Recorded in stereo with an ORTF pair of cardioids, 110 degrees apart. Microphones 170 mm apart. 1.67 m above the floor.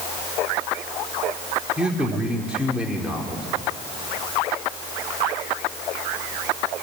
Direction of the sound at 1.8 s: 5° right.